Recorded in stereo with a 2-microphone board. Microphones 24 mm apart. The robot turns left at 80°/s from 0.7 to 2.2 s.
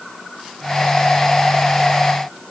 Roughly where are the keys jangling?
I don't hear keys jangling.